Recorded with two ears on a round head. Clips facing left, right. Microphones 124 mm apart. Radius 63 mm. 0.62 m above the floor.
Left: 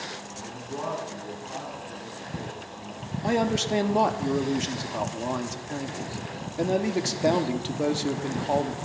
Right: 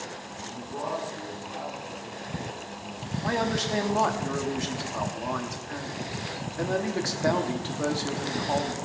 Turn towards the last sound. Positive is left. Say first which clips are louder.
# left 3 dB
turn(degrees=25)  # may be behind; listen again after turning